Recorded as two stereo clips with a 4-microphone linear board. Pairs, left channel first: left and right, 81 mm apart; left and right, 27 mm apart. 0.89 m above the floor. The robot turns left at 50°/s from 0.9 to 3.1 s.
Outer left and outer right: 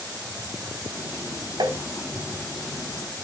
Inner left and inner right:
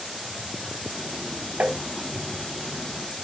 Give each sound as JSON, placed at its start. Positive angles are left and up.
{"t": 1.6, "sound": "tapping", "side_deg": -70, "distance_m": 2.5}